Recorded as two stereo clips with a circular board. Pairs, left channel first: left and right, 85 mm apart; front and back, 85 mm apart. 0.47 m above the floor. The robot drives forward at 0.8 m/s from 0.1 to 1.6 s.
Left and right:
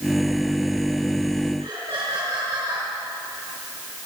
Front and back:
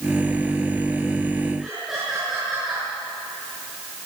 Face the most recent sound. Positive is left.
turn(degrees=-90)